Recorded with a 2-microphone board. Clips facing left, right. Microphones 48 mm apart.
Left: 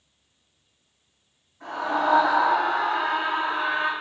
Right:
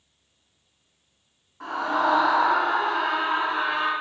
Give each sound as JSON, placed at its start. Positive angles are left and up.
{"t": 1.6, "sound": "a scream", "side_deg": -70, "distance_m": 3.5}